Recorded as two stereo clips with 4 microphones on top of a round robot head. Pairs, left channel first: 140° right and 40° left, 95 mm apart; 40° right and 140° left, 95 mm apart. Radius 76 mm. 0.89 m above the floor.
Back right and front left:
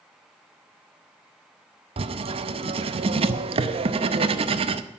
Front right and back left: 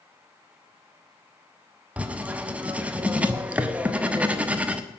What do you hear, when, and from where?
2.0 s writing: 65° left, 0.7 m